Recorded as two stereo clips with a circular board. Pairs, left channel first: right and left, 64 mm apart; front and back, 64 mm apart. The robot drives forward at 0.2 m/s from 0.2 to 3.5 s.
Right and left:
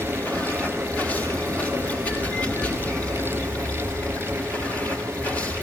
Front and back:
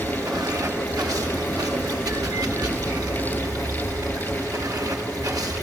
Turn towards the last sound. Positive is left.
turn(degrees=-155)